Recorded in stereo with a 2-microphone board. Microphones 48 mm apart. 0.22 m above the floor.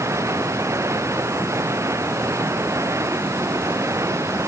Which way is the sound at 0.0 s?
80° right.